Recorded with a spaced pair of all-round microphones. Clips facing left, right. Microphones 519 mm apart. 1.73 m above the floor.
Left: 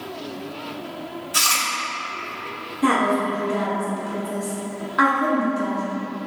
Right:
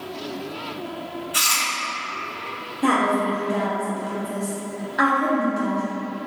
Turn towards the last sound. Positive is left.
turn(degrees=30)  # may be behind; listen again after turning